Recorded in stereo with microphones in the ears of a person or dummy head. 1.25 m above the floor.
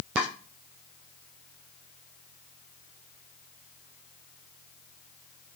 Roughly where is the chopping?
Centre.